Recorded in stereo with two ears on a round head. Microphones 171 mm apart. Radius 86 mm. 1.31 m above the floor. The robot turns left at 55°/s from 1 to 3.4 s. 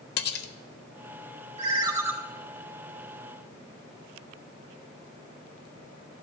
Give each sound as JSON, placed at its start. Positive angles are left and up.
{"t": 0.2, "sound": "cutlery clinking", "side_deg": 60, "distance_m": 0.8}
{"t": 1.6, "sound": "a ringtone", "azimuth_deg": -140, "distance_m": 1.7}